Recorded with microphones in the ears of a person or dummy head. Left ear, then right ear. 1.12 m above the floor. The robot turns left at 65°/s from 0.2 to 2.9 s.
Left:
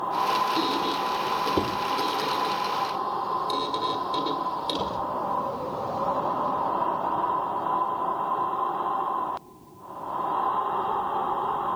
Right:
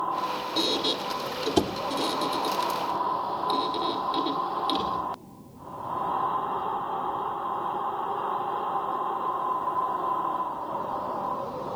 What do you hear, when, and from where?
0.6 s a squeak: 20° right (ahead or behind), 1.5 m; by 5.0 s 10° right (ahead or behind), 1.5 m